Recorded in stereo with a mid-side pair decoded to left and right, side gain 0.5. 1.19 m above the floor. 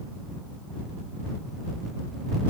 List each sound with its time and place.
Only background noise.